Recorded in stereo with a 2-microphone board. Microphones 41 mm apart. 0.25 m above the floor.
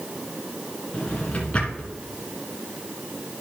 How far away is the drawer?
About 1.9 m.